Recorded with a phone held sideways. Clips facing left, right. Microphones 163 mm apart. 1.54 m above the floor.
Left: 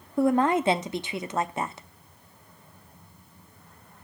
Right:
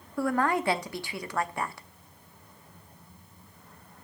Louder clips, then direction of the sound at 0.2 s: Left 5 dB; 20° left (ahead or behind).